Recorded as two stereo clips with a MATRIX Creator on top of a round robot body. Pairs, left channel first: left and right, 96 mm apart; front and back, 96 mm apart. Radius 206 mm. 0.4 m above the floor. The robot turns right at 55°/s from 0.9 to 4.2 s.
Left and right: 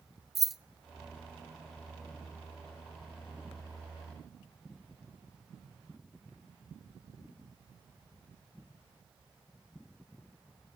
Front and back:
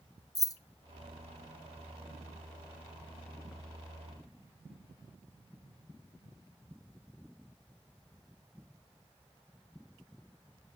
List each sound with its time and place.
0.3 s keys jangling: 5° right, 0.6 m